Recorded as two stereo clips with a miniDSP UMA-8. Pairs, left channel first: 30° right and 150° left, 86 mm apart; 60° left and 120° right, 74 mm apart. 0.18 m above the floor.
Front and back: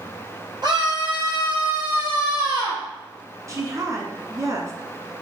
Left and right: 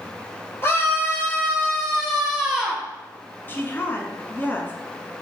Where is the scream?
120° left, 4.5 m; by 2.8 s 165° left, 4 m.